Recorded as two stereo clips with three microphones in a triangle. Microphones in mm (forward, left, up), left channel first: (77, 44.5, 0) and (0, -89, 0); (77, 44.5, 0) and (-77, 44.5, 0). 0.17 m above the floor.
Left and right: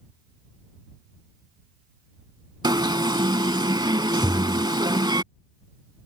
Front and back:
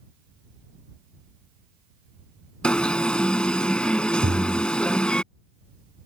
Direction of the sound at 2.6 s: 80° right.